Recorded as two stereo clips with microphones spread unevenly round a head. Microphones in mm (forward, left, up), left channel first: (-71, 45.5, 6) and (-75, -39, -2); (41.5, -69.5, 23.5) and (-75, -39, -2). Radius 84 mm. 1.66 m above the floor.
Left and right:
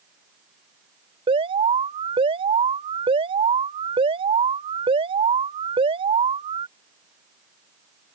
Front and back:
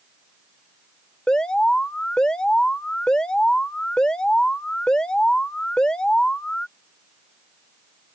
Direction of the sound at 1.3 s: 95° right.